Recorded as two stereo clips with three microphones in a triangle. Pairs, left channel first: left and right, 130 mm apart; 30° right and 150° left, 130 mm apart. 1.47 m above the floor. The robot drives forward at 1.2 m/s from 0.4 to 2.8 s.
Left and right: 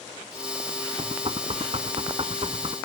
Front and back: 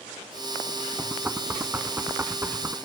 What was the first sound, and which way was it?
Knocking, 130° right.